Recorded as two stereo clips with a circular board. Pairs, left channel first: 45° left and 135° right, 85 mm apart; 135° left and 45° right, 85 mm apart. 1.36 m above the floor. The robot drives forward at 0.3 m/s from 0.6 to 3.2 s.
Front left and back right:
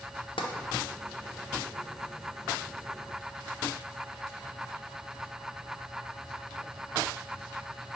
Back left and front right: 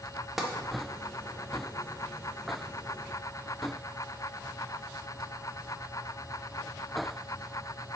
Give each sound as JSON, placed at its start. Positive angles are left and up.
{"t": 0.4, "sound": "tapping", "azimuth_deg": 40, "distance_m": 0.5}